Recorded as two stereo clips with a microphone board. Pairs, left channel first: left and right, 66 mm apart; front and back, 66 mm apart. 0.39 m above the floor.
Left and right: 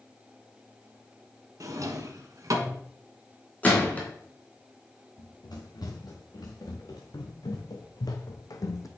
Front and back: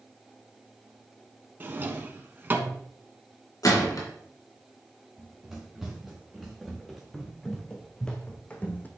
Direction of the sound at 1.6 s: 120° right.